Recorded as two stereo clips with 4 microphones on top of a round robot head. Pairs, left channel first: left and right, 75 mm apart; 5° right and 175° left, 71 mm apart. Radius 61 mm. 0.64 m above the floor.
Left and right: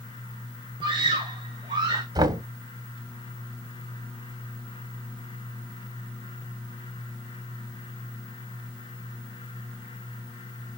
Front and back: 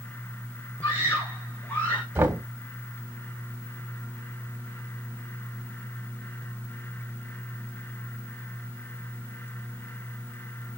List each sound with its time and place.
0.8 s a scream: 70° right, 3.5 m; by 2.0 s 75° right, 1.8 m
2.1 s knocking: 110° right, 1.5 m